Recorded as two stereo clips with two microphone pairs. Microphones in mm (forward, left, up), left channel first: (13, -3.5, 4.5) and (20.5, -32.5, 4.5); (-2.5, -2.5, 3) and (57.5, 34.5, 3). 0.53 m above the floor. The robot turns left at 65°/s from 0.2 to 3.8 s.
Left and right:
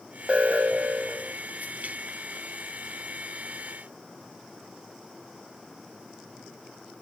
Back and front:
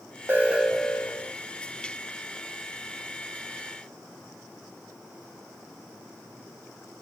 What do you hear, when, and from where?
0.3 s an alarm: 30° right, 2.5 m; by 1.3 s 95° right, 2.5 m